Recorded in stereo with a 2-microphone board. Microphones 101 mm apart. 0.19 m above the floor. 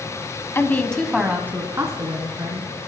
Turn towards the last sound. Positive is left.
turn(degrees=-40)  # may be behind; listen again after turning